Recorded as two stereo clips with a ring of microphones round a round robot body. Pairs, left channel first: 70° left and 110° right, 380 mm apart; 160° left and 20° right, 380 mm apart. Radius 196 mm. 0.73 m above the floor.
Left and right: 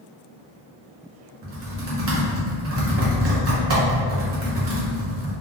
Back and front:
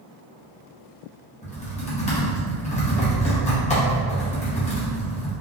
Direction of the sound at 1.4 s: 140° right.